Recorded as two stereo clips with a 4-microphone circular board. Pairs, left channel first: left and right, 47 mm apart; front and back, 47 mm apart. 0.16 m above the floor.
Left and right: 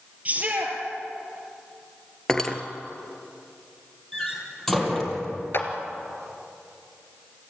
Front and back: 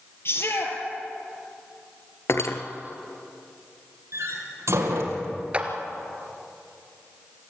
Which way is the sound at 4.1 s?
175° left.